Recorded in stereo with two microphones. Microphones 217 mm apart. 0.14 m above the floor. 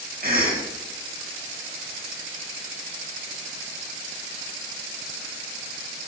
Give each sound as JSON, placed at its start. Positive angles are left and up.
{"t": 0.2, "sound": "a cough", "side_deg": -45, "distance_m": 3.5}